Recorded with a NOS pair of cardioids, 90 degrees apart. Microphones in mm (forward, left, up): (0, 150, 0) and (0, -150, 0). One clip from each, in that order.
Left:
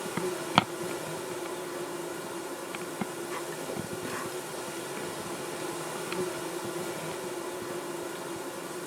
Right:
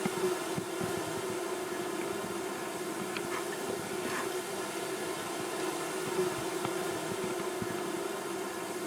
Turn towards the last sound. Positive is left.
turn(degrees=0)